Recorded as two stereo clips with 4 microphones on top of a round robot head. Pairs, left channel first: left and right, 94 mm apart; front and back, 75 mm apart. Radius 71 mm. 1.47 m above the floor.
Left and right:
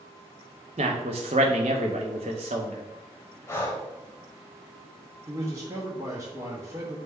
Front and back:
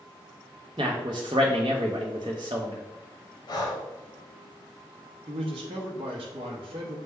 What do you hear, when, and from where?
0.8 s a man speaking: 130° right, 0.5 m
3.5 s breathing: 25° left, 0.9 m
5.3 s a man speaking: 155° right, 0.7 m